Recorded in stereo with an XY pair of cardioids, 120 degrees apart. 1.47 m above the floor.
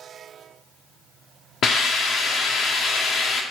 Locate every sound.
1.6 s a hiss: 55° left, 0.7 m